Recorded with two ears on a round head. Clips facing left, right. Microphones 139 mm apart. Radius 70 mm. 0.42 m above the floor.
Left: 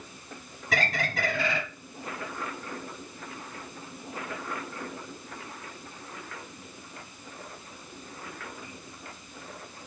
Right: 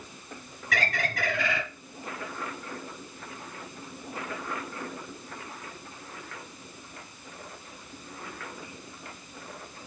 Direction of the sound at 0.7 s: 30° left (ahead or behind).